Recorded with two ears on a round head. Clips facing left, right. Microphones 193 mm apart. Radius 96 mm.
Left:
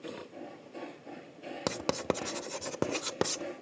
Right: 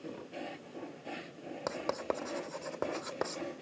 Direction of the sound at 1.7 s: 45° left (ahead or behind).